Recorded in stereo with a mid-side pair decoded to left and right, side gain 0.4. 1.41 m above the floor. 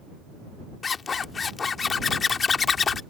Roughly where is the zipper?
Ahead left.